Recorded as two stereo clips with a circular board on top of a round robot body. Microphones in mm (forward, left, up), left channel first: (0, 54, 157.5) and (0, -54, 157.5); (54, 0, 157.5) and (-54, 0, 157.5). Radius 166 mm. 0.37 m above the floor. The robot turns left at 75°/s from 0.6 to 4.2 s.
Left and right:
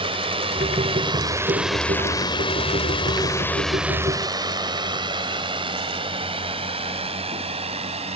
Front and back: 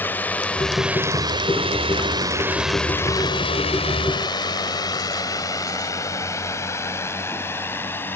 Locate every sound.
0.0 s a drone: 70° right